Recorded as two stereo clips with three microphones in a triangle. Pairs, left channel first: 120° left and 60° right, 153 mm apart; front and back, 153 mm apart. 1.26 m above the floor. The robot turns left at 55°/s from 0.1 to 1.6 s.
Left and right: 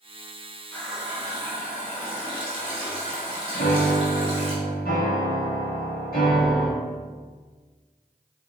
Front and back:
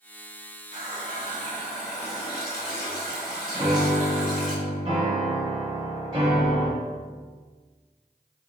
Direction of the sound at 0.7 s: 40° left.